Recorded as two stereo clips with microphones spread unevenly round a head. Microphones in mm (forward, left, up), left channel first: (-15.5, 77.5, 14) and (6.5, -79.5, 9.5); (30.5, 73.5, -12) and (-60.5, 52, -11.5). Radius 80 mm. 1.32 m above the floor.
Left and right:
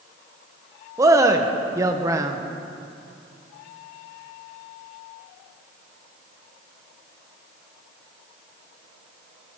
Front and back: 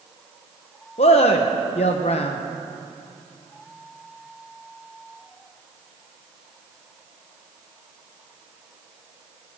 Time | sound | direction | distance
1.0 | a man speaking | 10° right | 1.1 m